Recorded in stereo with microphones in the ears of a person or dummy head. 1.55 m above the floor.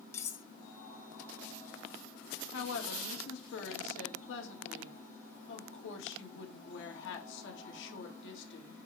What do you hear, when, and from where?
0.1 s cutlery clinking: 15° left (ahead or behind), 0.9 m
2.5 s a woman speaking: 75° left (ahead or behind), 2.5 m